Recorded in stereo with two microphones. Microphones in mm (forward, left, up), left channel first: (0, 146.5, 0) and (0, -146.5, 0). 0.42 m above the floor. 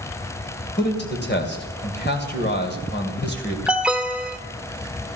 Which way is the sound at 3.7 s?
5° right (ahead or behind).